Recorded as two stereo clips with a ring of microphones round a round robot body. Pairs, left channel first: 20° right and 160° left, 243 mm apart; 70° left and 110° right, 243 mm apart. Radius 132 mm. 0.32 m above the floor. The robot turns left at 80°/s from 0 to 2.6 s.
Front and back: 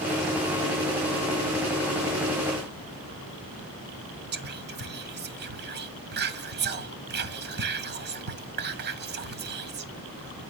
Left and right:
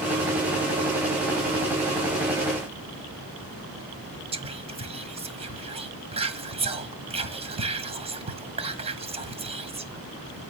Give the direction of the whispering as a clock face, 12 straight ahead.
6 o'clock.